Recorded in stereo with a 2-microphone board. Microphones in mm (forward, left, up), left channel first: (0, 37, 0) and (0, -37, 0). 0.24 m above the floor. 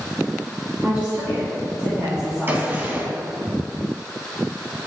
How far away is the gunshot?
About 1.0 m.